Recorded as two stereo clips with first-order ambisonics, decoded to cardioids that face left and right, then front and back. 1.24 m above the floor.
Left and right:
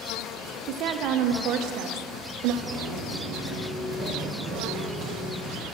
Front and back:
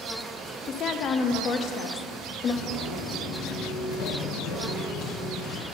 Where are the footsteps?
25° right, 2.5 m; by 5.6 s 45° left, 2.5 m.